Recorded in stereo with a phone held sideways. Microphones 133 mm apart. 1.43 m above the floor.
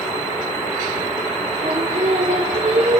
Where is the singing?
55° right (ahead or behind), 0.5 m.